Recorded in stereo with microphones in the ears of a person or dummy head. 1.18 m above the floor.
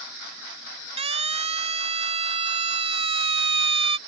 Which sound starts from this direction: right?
A siren, at 1.0 s.